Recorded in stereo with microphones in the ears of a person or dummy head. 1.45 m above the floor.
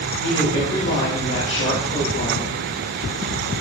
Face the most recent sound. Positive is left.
turn(degrees=55)  # may be behind; listen again after turning